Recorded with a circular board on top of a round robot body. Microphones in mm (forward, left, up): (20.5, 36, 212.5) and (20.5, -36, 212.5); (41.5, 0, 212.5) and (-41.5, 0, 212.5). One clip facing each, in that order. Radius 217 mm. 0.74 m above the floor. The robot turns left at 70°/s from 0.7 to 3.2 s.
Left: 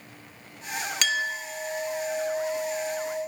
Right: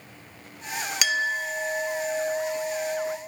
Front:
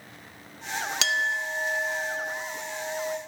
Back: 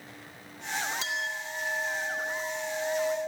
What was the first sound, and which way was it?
A clink, 5° right.